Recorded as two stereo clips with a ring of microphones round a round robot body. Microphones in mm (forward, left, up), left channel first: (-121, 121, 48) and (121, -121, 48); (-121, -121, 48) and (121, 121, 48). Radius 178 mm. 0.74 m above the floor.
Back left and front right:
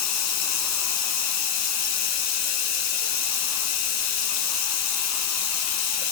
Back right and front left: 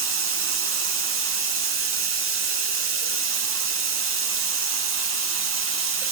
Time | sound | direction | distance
0.0 | running water | 95° left | 1.2 m